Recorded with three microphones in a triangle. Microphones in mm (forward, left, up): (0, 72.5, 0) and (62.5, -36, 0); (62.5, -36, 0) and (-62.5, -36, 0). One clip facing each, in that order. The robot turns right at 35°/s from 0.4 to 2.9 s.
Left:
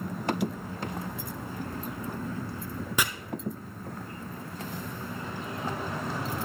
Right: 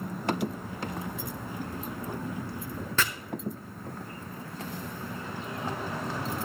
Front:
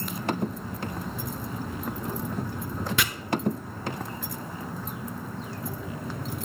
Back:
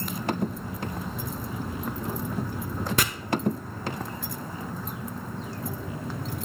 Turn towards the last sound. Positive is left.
turn(degrees=-175)